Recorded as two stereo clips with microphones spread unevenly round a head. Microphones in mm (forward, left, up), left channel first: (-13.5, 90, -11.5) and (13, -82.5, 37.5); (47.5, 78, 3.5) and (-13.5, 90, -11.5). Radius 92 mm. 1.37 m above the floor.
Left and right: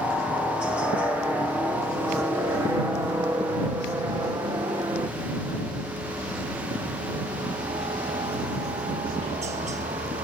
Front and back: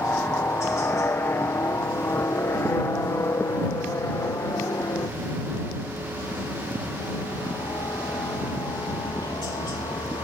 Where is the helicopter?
25° left; by 10.2 s 25° right.